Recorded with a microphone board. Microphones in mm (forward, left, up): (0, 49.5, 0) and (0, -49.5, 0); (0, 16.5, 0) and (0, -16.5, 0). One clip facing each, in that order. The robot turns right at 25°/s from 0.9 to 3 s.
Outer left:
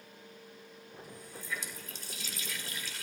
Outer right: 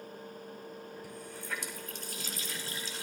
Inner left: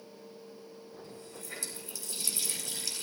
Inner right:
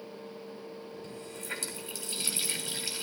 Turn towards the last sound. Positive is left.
turn(degrees=-25)